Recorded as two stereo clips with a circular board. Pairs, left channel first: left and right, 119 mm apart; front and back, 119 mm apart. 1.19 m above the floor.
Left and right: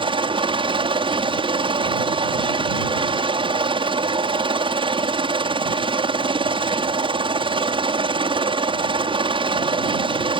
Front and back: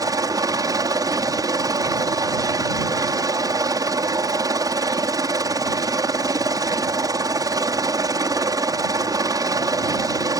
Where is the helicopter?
125° right.